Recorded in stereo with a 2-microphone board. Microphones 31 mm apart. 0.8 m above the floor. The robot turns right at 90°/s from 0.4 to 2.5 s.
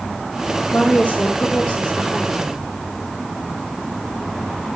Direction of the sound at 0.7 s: 25° left.